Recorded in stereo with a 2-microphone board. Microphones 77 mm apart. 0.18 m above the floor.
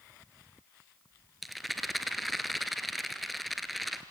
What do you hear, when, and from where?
1.4 s a rattle: centre (ahead or behind), 1.2 m